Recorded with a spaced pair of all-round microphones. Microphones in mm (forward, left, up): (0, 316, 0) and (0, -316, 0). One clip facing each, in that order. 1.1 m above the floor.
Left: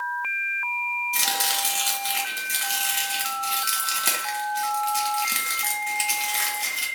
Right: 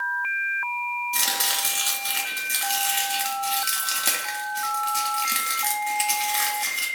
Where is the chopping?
Centre (ahead or behind), 0.5 m.